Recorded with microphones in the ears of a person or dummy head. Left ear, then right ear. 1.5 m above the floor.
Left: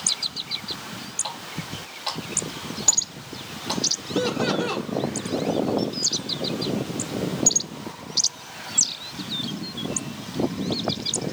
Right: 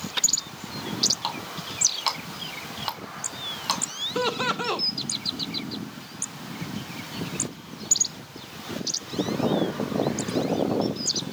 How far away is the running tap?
About 2.5 m.